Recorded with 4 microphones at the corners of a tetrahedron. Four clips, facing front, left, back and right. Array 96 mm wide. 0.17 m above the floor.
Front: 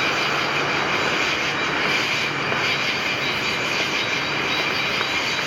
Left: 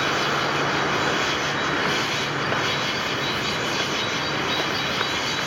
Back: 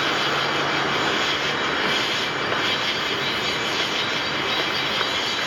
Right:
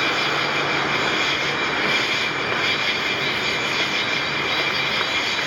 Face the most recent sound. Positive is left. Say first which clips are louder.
# right 1 dB, even
turn(degrees=-100)